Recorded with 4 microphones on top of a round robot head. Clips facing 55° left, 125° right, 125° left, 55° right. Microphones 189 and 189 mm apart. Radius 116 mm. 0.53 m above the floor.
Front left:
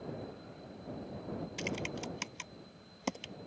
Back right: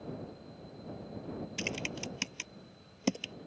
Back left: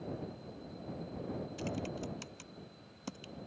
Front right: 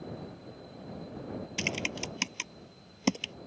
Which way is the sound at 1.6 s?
65° right.